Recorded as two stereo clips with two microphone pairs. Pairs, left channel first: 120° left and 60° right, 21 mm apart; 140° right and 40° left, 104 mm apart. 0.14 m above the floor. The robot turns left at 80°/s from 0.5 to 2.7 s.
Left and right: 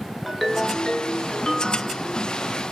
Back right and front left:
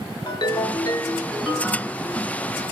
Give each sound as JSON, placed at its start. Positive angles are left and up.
{"t": 0.3, "sound": "a ringtone", "azimuth_deg": -150, "distance_m": 0.8}